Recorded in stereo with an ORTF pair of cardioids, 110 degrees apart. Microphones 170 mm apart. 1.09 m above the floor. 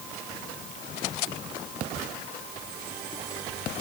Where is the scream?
I don't hear a scream.